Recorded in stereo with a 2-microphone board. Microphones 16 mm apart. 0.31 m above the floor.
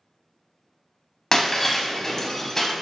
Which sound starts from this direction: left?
Breaking glass, at 1.3 s.